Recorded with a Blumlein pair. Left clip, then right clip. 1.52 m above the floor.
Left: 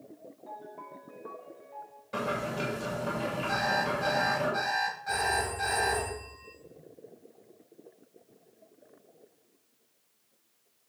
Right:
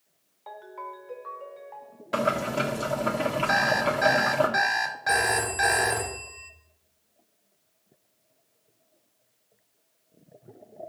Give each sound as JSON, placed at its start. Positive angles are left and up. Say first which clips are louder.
{"t": 0.5, "sound": "a ringtone", "louder": "right 5 dB", "azimuth_deg": -45, "distance_m": 1.8}
{"t": 2.1, "sound": "boiling", "louder": "right 7 dB", "azimuth_deg": -60, "distance_m": 1.9}
{"t": 3.5, "sound": "an alarm clock", "louder": "right 5 dB", "azimuth_deg": -60, "distance_m": 3.0}
{"t": 5.1, "sound": "a phone ringing", "louder": "right 7 dB", "azimuth_deg": -55, "distance_m": 1.9}